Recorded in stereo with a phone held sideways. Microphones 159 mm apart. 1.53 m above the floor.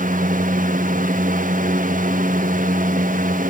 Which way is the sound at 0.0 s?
60° right (ahead or behind).